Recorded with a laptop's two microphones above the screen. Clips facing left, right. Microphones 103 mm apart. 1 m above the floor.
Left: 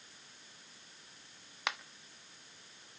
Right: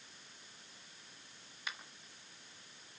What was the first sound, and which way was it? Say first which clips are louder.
A finger snap: left 8 dB; 70° left (ahead or behind).